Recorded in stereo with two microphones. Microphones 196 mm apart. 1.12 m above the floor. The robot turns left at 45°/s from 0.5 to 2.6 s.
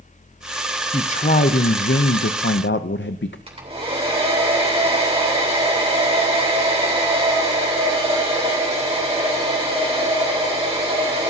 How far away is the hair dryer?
About 3.5 m.